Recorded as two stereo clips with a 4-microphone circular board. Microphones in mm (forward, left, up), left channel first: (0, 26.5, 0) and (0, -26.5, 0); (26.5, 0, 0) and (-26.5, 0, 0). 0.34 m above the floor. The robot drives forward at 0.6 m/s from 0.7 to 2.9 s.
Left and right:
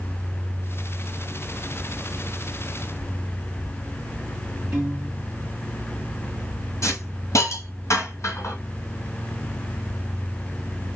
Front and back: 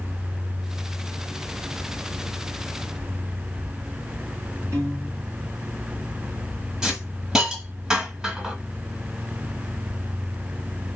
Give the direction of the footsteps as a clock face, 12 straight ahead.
I don't hear footsteps.